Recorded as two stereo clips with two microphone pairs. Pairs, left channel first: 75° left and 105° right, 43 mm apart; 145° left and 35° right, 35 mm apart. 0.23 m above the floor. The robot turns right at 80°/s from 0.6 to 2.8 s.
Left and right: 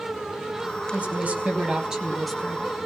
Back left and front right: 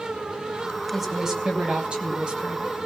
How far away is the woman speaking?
About 1.8 m.